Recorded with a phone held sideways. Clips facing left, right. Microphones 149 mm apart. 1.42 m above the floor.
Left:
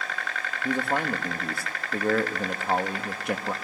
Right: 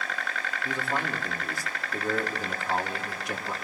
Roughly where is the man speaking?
Left.